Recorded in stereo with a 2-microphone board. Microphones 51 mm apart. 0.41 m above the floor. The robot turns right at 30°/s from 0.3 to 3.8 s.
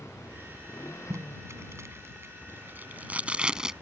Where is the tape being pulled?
75° right (ahead or behind); by 3.7 s 15° right (ahead or behind).